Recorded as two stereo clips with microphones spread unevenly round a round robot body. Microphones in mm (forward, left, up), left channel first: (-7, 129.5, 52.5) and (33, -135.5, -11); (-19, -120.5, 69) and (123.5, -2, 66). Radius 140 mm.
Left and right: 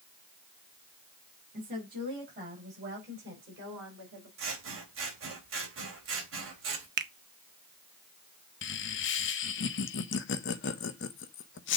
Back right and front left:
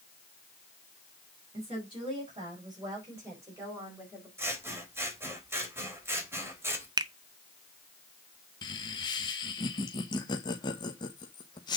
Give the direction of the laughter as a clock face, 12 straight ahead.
7 o'clock.